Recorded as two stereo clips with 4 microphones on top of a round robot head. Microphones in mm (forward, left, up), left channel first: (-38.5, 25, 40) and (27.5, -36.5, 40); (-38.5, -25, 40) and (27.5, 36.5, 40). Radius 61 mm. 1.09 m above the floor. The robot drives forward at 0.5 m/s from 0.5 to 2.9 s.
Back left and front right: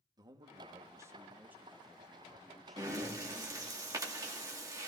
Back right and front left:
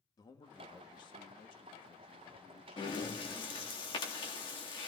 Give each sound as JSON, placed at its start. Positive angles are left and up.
{"t": 0.2, "sound": "a man speaking", "azimuth_deg": -90, "distance_m": 1.2}
{"t": 2.8, "sound": "breathing", "azimuth_deg": -95, "distance_m": 2.0}